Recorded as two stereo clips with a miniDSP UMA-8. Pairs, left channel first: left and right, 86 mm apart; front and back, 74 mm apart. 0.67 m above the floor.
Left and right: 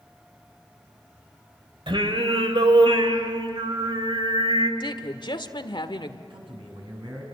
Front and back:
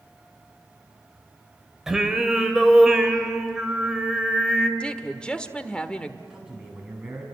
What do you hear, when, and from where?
1.9 s singing: 100° right, 1.9 m
4.8 s a woman speaking: 75° left, 1.5 m
6.3 s a man speaking: 100° right, 7 m